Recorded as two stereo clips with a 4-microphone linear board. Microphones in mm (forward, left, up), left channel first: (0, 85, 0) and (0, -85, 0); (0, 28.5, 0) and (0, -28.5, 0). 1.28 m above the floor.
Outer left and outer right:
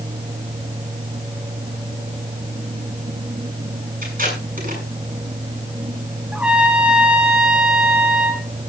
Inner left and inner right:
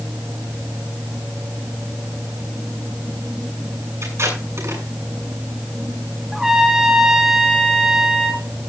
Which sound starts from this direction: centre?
A trumpet, at 6.3 s.